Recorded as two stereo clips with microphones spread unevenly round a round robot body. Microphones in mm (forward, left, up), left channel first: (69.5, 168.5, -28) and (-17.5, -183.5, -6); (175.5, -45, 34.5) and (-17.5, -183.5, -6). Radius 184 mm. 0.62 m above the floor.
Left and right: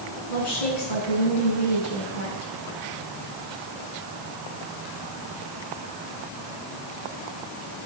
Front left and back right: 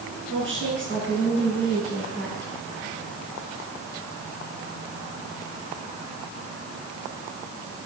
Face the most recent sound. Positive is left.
turn(degrees=90)